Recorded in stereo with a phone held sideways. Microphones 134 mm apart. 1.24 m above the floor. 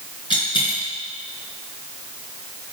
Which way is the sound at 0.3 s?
35° left (ahead or behind).